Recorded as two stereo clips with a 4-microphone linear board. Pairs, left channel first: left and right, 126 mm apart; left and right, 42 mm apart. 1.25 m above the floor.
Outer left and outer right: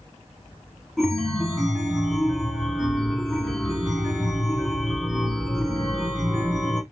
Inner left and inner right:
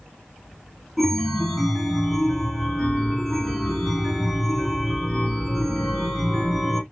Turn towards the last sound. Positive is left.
turn(degrees=0)  # may be behind; listen again after turning